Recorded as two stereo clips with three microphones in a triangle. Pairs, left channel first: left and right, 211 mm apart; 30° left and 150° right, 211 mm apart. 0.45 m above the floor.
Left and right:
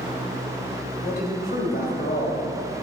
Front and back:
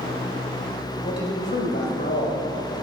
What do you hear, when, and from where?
1.0 s a man speaking: 55° left, 2.5 m